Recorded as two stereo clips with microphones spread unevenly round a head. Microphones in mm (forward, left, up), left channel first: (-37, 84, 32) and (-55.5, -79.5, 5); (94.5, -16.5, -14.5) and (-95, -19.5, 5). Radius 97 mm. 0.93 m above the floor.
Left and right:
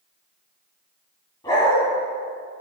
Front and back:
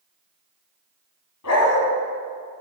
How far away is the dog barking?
About 3.5 m.